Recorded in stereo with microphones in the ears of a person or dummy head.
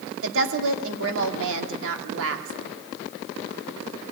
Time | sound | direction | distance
0.2 | a woman speaking | 80° right | 2.5 m